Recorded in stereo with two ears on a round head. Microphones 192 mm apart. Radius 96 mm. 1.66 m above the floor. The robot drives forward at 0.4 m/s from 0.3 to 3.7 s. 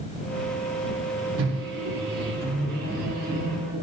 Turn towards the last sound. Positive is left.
turn(degrees=-40)  # may be behind; listen again after turning